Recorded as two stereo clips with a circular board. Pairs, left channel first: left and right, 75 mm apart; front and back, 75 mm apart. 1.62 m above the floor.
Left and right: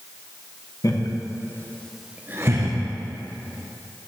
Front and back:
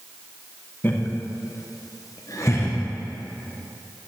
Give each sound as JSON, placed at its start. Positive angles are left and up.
{"t": 0.8, "sound": "laughter", "azimuth_deg": 60, "distance_m": 1.3}